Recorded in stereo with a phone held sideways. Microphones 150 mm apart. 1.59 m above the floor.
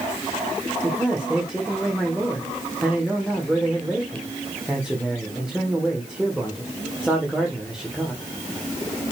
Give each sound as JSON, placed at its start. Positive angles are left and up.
{"t": 0.8, "sound": "a man speaking", "side_deg": -5, "distance_m": 1.7}